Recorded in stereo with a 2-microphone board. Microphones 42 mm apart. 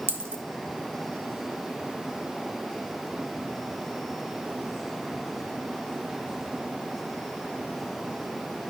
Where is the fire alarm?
I don't hear a fire alarm.